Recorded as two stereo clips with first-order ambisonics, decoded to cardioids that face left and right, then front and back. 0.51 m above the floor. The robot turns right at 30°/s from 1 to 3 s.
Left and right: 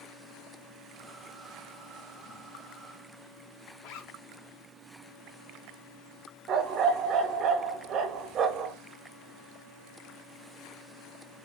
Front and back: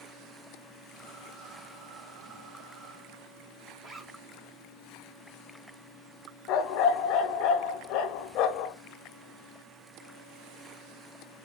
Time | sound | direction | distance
3.8 | a zipper | 110° left | 0.9 m
6.5 | a dog barking | 35° right | 0.6 m